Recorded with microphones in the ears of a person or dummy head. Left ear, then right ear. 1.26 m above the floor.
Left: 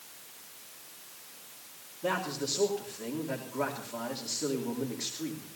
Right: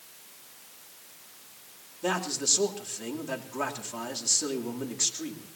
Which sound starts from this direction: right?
A man speaking, at 2.0 s.